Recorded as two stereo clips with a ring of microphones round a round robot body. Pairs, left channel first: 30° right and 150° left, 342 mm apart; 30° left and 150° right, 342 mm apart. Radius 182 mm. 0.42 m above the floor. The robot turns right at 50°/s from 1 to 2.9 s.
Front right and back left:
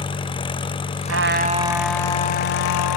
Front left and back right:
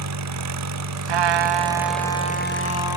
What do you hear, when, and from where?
0.0 s an engine running: 105° right; by 3.0 s 10° right
1.1 s a trumpet: 160° right; by 3.0 s 70° right